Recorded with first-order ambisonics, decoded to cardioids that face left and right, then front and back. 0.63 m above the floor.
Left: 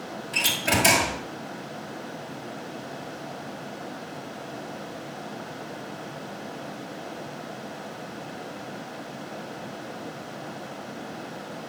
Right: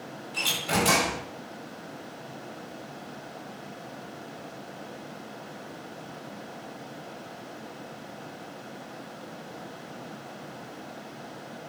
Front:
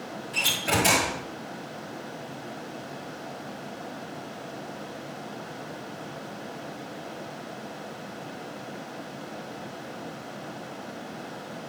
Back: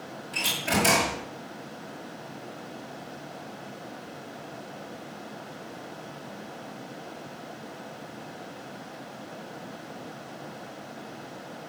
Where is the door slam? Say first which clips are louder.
Left 3 dB, front 2 dB; 100° left, 8 m.